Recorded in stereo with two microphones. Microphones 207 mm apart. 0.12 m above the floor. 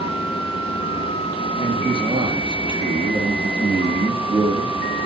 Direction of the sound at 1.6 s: 20° right (ahead or behind).